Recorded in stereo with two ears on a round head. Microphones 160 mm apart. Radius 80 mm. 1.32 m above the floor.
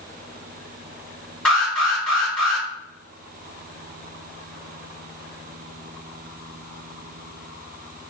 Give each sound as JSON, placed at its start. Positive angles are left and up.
{"t": 1.4, "sound": "an alarm", "side_deg": 5, "distance_m": 1.7}